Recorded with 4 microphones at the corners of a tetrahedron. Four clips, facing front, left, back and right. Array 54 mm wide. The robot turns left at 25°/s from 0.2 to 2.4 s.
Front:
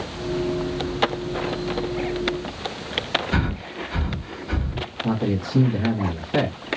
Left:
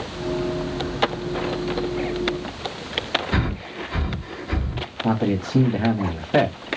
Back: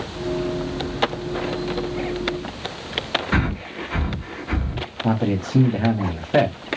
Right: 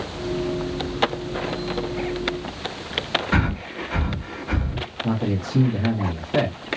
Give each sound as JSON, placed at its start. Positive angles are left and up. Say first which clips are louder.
{"t": 3.3, "sound": "breathing", "louder": "right 2 dB, back 2 dB", "azimuth_deg": -140, "distance_m": 1.8}
{"t": 5.0, "sound": "a man speaking", "louder": "left 4 dB, back 3 dB", "azimuth_deg": 135, "distance_m": 1.0}